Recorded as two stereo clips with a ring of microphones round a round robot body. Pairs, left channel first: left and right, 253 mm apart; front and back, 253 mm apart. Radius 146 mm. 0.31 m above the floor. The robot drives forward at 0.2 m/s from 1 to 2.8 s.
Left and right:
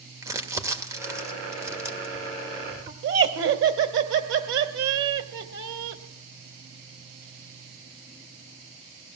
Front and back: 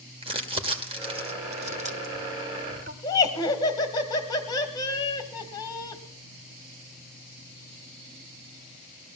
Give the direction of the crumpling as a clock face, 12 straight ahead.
5 o'clock.